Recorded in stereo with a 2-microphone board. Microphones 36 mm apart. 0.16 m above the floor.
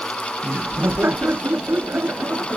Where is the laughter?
80° right; by 2.6 s 75° right (ahead or behind).